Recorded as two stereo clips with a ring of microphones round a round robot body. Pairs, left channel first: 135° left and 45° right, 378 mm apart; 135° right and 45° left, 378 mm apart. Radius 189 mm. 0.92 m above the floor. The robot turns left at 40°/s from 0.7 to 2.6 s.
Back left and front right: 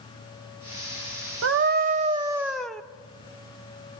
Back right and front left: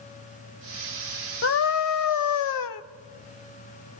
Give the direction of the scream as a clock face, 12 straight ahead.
3 o'clock.